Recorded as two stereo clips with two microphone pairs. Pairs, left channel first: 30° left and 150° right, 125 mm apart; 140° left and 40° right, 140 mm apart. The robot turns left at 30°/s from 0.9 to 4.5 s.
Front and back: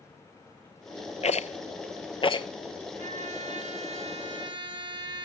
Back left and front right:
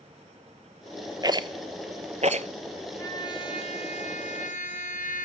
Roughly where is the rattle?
Ahead.